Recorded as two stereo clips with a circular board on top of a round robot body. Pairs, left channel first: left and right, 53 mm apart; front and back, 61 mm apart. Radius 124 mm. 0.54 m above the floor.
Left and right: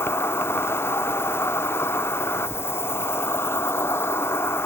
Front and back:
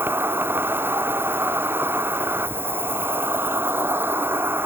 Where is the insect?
125° left.